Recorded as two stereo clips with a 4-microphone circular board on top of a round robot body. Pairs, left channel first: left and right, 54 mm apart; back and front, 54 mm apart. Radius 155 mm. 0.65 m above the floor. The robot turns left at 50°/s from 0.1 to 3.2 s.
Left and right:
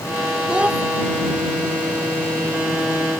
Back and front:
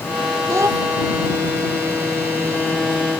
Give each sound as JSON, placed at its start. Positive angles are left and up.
{"t": 0.5, "sound": "a child speaking", "azimuth_deg": -15}